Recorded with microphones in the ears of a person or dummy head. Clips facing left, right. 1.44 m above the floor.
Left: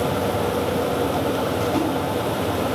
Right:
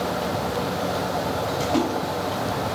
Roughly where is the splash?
Centre.